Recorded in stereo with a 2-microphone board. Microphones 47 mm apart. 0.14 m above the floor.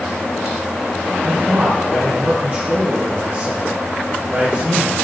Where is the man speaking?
30° right (ahead or behind), 4 m.